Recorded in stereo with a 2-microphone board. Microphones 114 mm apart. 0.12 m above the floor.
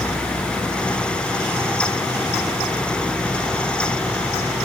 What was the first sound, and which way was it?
Only background noise.